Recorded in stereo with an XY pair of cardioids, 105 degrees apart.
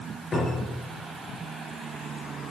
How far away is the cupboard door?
About 5.5 m.